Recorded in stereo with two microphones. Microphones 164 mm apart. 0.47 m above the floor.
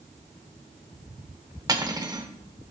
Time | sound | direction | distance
1.7 | cutlery clinking | 25° right (ahead or behind) | 0.8 m